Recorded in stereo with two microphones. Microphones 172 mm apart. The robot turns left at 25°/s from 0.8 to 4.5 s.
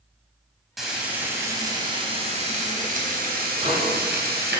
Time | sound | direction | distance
0.8 | frying | straight ahead | 3.5 m
3.6 | a microwave | 35° right (ahead or behind) | 6 m